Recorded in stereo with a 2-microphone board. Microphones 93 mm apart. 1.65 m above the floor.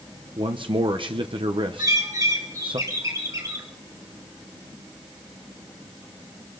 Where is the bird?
35° right (ahead or behind), 2 m.